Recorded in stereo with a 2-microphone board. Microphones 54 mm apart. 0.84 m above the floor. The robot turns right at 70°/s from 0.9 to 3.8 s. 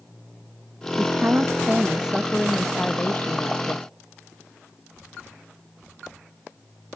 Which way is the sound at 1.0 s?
95° right.